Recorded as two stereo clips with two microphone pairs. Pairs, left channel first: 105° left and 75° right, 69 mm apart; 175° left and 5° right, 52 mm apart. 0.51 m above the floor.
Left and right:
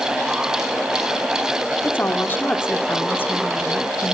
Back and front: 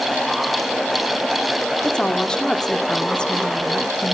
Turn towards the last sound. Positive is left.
turn(degrees=115)